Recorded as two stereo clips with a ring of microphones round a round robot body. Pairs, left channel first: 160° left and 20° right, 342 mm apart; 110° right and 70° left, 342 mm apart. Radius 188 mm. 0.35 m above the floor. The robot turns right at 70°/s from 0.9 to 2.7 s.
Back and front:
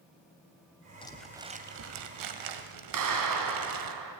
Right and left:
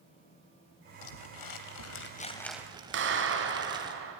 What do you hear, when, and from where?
1.0 s crumpling: 130° right, 1.9 m; by 3.9 s 10° right, 1.9 m
2.9 s a clap: 10° left, 3 m